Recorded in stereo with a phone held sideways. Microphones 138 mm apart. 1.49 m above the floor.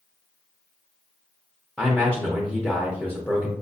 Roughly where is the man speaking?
Centre.